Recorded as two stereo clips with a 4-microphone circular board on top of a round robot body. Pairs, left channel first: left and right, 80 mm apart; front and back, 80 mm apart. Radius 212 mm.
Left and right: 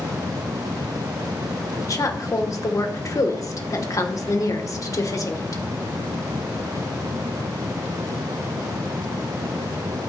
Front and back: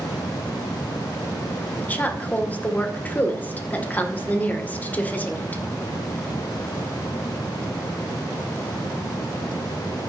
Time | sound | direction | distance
1.8 | a woman speaking | 60° left | 2 m